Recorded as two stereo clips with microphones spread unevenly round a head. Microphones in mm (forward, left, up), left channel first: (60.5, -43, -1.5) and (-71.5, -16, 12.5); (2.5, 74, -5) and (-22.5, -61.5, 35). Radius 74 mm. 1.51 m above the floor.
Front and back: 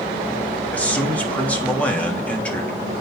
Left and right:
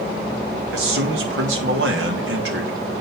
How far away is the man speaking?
About 3 m.